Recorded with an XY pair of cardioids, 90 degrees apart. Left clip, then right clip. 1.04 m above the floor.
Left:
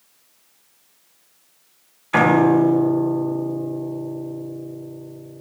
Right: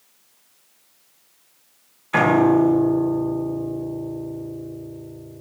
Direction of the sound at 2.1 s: 15° left.